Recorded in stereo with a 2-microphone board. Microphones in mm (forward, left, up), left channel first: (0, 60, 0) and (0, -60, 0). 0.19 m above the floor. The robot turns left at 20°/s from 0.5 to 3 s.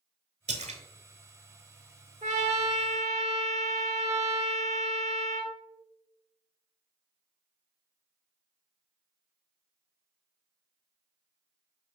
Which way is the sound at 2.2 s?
80° right.